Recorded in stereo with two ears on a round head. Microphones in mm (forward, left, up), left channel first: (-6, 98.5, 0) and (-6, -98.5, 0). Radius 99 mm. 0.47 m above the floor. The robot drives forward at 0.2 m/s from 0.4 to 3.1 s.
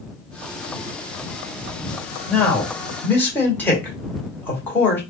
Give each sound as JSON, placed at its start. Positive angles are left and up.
{"t": 2.3, "sound": "a man speaking", "side_deg": 10, "distance_m": 1.3}